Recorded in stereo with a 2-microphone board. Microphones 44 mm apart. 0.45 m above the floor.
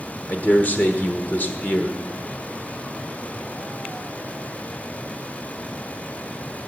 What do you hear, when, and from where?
0.3 s a man speaking: 40° left (ahead or behind), 1.2 m